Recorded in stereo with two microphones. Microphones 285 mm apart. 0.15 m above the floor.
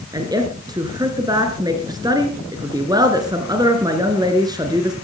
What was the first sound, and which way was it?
A woman speaking, 15° right (ahead or behind).